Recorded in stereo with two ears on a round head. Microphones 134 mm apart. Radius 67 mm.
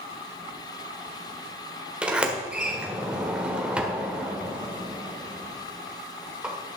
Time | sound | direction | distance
2.0 | a sliding door | 5° right (ahead or behind) | 1.4 m